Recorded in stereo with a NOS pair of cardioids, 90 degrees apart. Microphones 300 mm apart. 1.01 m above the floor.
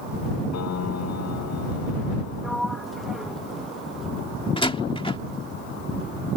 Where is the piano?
60° left.